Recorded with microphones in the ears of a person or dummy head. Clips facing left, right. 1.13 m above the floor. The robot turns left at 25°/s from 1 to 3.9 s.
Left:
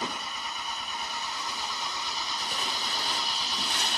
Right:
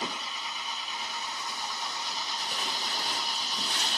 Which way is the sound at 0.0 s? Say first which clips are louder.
Left 1 dB; 130° left.